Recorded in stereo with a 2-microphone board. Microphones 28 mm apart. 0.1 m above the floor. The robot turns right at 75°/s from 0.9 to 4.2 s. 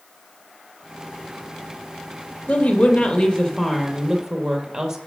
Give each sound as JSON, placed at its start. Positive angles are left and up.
{"t": 2.5, "sound": "a woman speaking", "azimuth_deg": 70, "distance_m": 3.0}